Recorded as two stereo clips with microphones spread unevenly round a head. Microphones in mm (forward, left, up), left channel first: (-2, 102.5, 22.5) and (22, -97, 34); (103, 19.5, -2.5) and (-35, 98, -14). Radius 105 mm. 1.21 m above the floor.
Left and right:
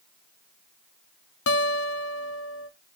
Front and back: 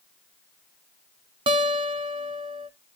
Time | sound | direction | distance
1.5 | a guitar | 95° left | 0.8 m